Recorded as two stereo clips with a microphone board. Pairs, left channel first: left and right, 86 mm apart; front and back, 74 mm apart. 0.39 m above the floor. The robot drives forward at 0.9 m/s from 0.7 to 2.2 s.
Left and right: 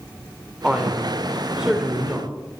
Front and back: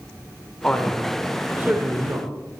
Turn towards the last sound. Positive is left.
turn(degrees=-170)